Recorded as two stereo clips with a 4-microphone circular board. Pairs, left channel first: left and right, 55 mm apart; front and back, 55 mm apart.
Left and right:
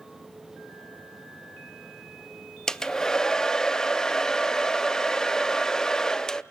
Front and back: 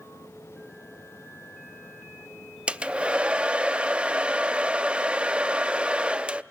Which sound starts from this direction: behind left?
A hair dryer, at 2.7 s.